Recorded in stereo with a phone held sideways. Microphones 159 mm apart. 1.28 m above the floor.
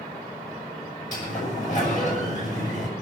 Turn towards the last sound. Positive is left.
turn(degrees=55)  # may be behind; listen again after turning